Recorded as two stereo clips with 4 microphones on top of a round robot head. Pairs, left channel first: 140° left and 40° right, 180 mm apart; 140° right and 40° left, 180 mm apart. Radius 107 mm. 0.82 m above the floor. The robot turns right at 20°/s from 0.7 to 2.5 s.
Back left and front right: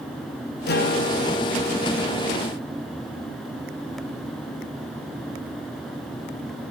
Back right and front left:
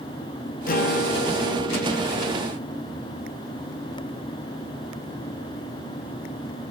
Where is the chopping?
I don't hear chopping.